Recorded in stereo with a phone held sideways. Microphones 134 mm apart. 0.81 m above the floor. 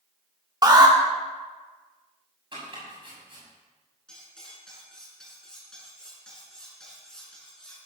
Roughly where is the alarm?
Right.